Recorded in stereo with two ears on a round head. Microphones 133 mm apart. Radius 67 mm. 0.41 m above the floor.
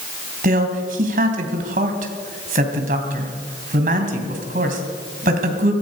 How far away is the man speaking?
About 2.5 m.